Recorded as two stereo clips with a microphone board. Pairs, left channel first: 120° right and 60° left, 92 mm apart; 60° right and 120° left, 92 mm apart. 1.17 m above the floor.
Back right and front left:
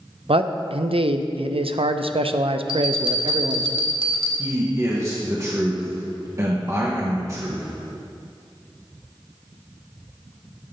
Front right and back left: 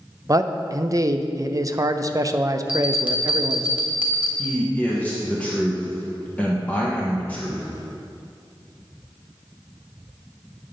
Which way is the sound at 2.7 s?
40° left.